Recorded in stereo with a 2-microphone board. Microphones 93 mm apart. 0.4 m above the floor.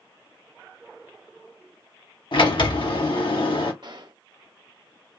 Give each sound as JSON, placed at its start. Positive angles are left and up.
{"t": 2.3, "sound": "a sliding door", "side_deg": 60, "distance_m": 0.9}
{"t": 3.8, "sound": "a gunshot", "side_deg": -50, "distance_m": 0.5}